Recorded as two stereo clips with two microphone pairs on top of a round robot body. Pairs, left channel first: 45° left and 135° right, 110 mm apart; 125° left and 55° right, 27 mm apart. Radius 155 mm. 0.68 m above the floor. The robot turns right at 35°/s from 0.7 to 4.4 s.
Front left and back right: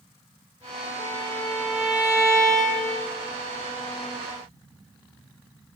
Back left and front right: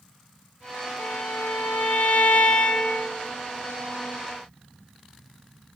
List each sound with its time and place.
1.0 s a violin: 115° left, 0.6 m; by 3.1 s 170° right, 0.6 m